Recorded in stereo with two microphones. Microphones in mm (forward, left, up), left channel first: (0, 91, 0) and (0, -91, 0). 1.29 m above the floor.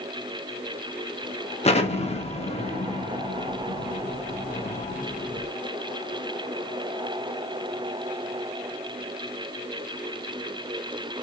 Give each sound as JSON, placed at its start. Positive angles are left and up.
{"t": 1.6, "sound": "an explosion", "side_deg": 35, "distance_m": 0.7}